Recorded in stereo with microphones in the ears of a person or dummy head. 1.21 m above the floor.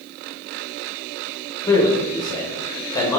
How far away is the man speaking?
About 0.6 m.